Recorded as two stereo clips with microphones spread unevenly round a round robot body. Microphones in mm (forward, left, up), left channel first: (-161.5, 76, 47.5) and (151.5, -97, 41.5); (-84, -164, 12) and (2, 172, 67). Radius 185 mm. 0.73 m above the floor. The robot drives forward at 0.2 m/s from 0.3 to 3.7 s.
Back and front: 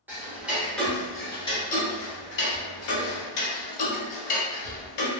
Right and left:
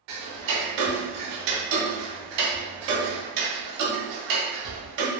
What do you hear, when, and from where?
0.1 s ticking: 55° left, 0.7 m; by 5.1 s 115° left, 0.7 m